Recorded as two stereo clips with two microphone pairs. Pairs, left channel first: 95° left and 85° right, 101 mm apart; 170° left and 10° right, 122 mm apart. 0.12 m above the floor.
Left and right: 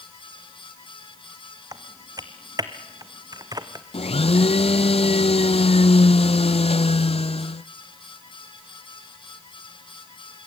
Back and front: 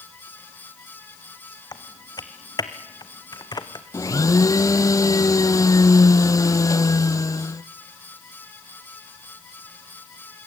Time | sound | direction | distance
1.7 | typing on a keyboard | 135° right | 1.6 m
3.9 | a blender | 105° left | 0.6 m